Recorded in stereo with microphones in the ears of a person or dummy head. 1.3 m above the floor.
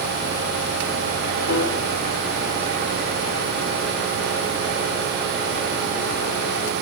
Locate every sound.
1.5 s a piano: 65° left (ahead or behind), 2 m